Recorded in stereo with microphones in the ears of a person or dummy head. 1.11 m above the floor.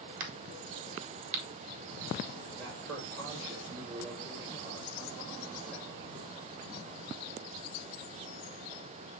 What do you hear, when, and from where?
0.2 s a crack: 50° right (ahead or behind), 3.5 m
2.6 s a man speaking: 75° right (ahead or behind), 4.5 m